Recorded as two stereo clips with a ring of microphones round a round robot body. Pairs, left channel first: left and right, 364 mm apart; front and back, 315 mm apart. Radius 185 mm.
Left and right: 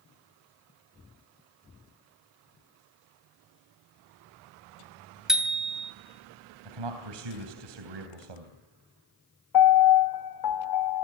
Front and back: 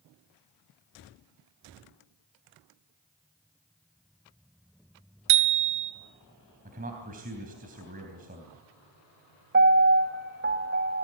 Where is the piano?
125° left, 2.5 m.